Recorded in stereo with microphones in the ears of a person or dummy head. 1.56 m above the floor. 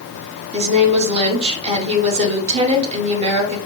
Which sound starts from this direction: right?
A woman speaking, at 0.5 s.